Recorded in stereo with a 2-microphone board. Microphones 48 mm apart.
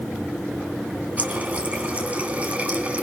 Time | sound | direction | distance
1.2 | a running tap | 30° right (ahead or behind) | 2.5 m